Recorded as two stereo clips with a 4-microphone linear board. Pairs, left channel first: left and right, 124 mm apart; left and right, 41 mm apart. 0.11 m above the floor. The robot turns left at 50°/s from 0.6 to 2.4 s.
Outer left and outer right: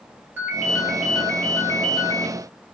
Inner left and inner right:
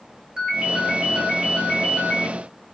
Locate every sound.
0.4 s a ringtone: 160° right, 1.6 m; by 2.3 s 115° left, 1.6 m